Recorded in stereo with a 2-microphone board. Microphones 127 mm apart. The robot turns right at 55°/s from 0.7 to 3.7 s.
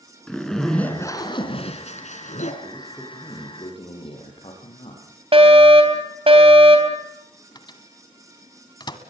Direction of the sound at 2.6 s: 15° right.